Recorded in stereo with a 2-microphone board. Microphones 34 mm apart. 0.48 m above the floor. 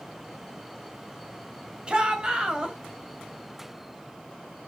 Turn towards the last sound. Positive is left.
turn(degrees=-25)  # may be behind; listen again after turning